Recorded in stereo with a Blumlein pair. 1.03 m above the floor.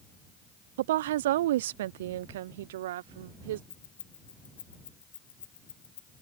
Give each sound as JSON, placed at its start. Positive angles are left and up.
{"t": 0.8, "sound": "a woman speaking", "azimuth_deg": -55}
{"t": 3.7, "sound": "keys jangling", "azimuth_deg": 70}